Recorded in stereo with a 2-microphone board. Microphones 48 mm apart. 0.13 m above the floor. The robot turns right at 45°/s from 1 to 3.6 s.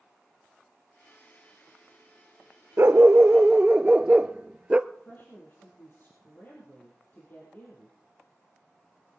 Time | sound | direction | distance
2.8 | a dog barking | 65° right | 0.5 m
4.9 | a woman speaking | 45° left (ahead or behind) | 4 m